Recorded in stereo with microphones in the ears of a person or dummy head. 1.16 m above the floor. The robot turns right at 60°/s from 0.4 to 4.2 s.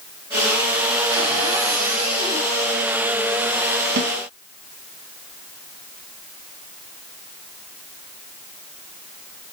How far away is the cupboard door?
About 2.5 m.